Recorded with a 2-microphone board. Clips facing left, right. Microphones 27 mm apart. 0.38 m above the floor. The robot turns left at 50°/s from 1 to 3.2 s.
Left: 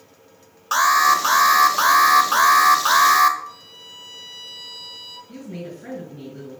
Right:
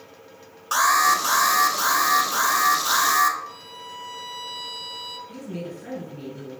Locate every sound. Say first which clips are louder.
0.7 s an alarm: left 3 dB; 165° left, 0.8 m; by 3.4 s 55° left, 0.8 m
3.5 s a violin: right 2 dB; 5° left (ahead or behind), 1.9 m
5.3 s a woman speaking: even; 30° left (ahead or behind), 4.5 m